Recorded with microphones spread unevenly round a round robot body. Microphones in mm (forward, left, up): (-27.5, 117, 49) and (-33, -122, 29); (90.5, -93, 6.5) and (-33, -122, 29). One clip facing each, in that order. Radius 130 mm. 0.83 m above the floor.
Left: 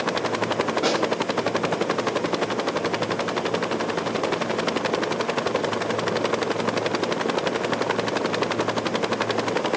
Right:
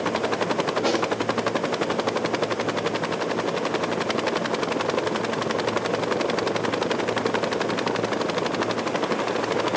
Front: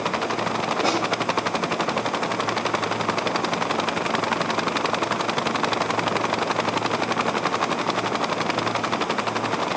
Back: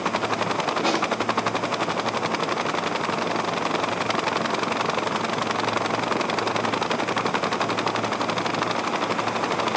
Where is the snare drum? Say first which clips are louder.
Right 1 dB, front 1 dB; 75° left, 4 m.